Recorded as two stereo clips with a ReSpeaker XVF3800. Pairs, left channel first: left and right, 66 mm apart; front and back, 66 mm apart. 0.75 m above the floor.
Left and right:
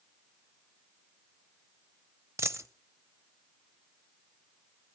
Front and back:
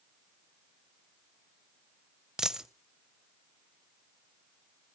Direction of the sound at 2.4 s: 100° right.